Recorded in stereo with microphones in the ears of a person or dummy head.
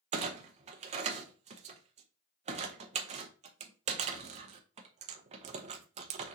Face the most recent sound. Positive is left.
turn(degrees=-35)  # may be behind; listen again after turning